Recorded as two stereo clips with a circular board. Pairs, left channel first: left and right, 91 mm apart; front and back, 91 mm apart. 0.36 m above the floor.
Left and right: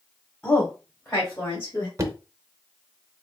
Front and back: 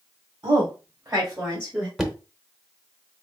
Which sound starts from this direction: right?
Knocking, at 2.0 s.